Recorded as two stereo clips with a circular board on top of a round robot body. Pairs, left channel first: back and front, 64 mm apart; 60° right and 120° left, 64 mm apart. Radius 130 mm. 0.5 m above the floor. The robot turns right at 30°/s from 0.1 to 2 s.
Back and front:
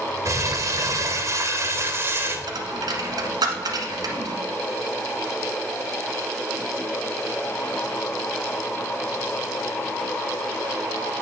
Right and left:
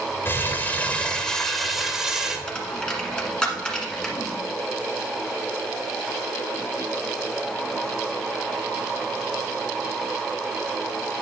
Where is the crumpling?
15° right, 1.6 m; by 2.4 s 40° left, 1.6 m.